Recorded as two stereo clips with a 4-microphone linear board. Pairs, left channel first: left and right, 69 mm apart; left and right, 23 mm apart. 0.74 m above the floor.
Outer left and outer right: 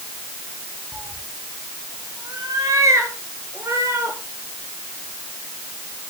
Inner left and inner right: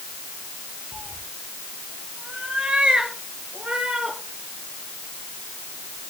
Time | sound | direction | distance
0.9 | a cat meowing | 65° right (ahead or behind) | 2.5 m